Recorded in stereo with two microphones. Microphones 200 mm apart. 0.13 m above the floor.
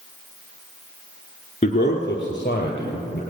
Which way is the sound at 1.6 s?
35° left (ahead or behind).